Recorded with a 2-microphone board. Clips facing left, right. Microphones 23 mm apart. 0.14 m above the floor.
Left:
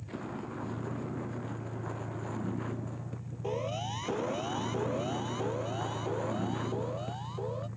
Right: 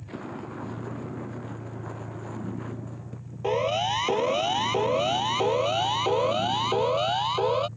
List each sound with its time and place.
0.0 s a vehicle: 15° right (ahead or behind); by 7.8 s 30° left (ahead or behind)
3.4 s a siren: 45° right (ahead or behind); by 7.7 s 65° right (ahead or behind)